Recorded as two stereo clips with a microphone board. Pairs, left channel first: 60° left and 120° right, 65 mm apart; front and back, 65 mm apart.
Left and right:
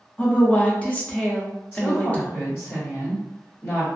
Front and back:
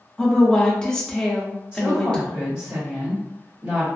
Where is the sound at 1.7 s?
115° left, 1.5 m.